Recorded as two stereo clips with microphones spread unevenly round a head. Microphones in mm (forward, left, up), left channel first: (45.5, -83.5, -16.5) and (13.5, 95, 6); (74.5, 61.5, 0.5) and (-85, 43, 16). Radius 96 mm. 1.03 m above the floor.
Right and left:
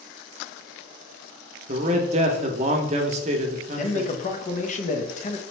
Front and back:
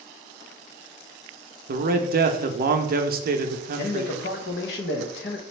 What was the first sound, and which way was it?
A man speaking, 160° left.